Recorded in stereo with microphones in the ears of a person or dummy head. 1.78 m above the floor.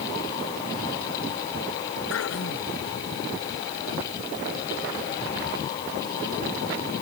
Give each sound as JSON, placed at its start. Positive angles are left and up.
{"t": 2.1, "sound": "throat clearing", "side_deg": 80}